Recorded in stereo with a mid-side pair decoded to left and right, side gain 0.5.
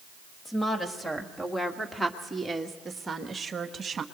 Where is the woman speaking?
20° left, 2.5 m; by 4.0 s 40° right, 1.8 m.